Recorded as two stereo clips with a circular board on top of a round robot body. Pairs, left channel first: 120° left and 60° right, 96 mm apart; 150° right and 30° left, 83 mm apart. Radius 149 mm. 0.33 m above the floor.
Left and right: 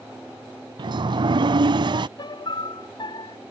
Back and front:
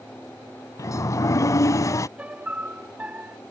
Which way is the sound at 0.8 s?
100° right.